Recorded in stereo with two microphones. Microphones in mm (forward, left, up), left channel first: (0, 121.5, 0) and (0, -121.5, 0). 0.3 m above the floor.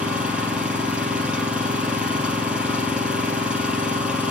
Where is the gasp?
No gasp in this recording.